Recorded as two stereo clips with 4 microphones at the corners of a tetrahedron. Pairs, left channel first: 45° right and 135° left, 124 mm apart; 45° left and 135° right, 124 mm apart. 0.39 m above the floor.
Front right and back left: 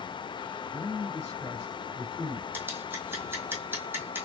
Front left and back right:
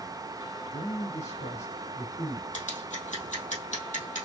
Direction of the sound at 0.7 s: 35° left.